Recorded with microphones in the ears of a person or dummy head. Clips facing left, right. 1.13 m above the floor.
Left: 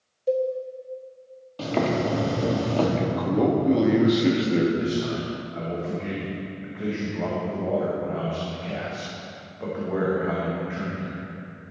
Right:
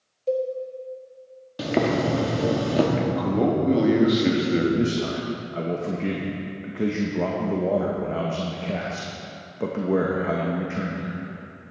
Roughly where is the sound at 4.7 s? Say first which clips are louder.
Right 2 dB; right.